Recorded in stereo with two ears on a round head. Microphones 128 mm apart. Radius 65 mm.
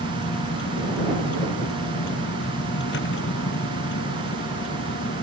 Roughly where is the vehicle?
Left.